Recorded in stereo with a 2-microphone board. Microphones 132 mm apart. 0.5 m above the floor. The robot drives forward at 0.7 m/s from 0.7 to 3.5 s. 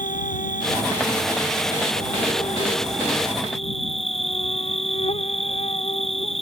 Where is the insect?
75° left (ahead or behind); by 6.4 s 50° left (ahead or behind).